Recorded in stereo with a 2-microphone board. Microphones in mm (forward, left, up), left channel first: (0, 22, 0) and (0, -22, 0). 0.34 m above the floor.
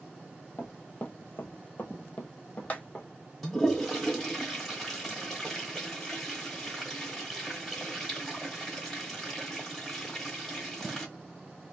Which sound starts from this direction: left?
Running footsteps, at 0.6 s.